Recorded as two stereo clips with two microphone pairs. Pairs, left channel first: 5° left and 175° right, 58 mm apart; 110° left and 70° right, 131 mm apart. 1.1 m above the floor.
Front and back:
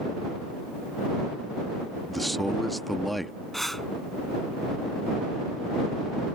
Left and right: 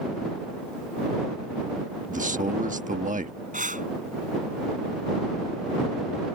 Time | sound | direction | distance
2.1 | a man speaking | 80° right | ?
3.5 | breathing | 80° right | ?